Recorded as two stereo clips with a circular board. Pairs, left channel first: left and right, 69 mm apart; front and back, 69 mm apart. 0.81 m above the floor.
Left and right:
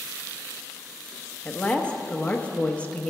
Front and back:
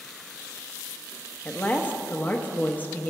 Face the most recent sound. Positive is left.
turn(degrees=35)